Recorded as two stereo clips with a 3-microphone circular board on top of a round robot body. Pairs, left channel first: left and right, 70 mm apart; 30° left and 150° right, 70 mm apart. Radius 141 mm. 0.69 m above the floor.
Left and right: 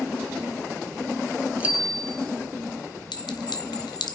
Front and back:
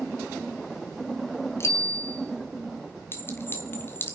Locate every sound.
1.6 s a bicycle bell: 20° right, 2.5 m
3.1 s a clink: 90° left, 1.9 m